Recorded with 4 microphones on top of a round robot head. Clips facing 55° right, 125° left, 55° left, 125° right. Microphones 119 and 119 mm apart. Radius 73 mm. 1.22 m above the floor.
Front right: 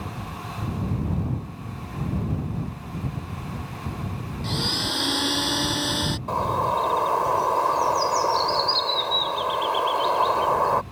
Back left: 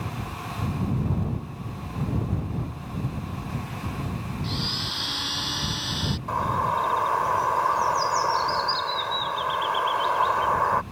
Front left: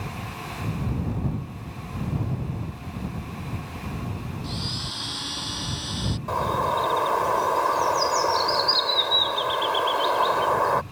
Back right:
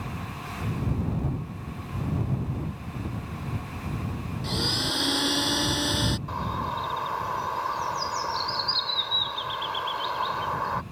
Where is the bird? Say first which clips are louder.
Front right 1 dB, front left 7 dB; 10° left.